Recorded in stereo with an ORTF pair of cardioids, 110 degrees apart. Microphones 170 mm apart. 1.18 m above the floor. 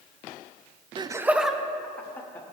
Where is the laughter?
30° right, 0.6 m; by 2.4 s 10° left, 1.8 m.